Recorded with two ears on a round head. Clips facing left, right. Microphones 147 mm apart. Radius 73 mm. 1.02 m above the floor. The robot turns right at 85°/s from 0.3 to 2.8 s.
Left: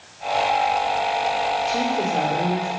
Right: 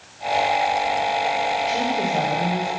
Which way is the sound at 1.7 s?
25° right.